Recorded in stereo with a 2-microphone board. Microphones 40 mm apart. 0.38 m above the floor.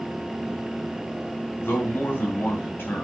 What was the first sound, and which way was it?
A man speaking, 65° left (ahead or behind).